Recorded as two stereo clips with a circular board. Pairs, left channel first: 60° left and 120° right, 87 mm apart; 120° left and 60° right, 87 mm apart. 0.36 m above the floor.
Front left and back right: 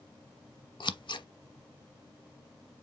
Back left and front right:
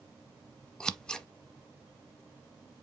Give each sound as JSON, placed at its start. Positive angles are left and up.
{"t": 0.8, "sound": "scissors", "azimuth_deg": 40, "distance_m": 0.5}